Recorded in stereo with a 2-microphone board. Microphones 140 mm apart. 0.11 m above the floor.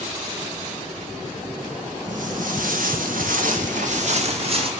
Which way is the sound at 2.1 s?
65° right (ahead or behind).